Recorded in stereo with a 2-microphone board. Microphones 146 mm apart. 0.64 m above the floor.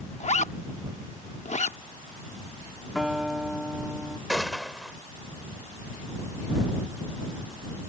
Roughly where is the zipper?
Left.